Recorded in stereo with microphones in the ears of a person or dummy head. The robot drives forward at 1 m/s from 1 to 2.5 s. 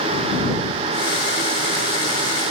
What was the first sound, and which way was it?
Only background noise.